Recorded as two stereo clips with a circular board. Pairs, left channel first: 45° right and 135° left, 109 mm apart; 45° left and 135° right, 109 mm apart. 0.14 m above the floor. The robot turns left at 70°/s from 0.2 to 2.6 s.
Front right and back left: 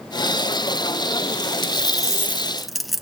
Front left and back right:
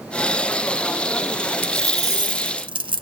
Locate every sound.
1.6 s a dropped coin: 65° right, 0.5 m; by 3.0 s 135° right, 0.5 m